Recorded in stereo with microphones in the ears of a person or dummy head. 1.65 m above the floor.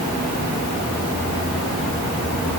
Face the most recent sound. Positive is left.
No sound to turn to.